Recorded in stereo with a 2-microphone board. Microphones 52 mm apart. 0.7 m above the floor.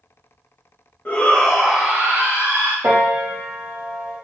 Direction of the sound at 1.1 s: 35° left (ahead or behind).